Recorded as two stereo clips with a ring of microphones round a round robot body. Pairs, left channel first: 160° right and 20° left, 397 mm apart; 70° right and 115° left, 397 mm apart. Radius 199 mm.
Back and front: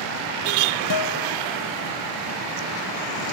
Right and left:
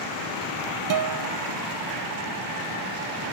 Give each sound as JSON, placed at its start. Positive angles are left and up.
{"t": 0.9, "sound": "a guitar", "azimuth_deg": 160}